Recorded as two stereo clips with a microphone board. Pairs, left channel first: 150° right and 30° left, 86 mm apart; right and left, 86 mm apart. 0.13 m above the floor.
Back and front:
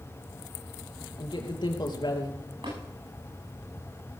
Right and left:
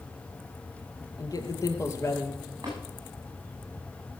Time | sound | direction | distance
1.2 | a man speaking | 130° right | 2.5 m
2.6 | tapping | 40° left | 9.5 m